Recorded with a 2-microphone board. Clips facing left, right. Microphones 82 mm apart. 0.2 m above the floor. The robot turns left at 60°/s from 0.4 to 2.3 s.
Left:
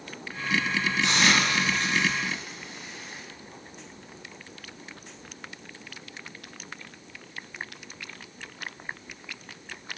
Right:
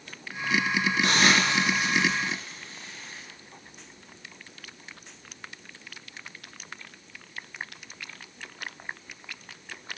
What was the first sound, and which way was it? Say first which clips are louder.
A hiss: right 1 dB; 50° right (ahead or behind).